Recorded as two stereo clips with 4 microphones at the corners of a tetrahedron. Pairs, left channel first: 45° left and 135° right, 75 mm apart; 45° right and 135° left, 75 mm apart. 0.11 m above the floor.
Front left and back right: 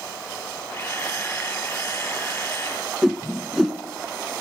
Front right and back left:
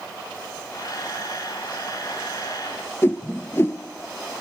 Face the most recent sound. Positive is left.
turn(degrees=-50)